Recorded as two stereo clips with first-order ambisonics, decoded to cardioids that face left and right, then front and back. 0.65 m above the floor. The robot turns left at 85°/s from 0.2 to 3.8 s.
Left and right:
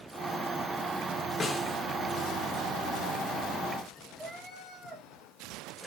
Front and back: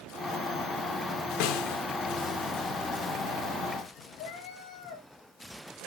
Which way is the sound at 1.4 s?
20° left.